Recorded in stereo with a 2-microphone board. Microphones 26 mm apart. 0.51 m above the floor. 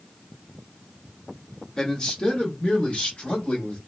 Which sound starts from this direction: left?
A man speaking, at 1.8 s.